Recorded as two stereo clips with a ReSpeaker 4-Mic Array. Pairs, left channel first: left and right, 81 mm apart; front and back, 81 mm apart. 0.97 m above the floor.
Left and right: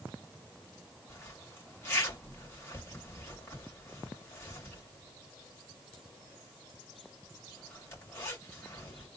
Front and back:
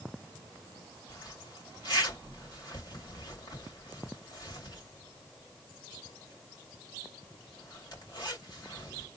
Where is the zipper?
35° left, 2 m.